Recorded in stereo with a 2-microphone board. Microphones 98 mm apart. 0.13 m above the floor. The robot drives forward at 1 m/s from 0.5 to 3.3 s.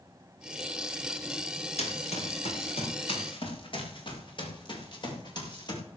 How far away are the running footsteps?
About 5 m.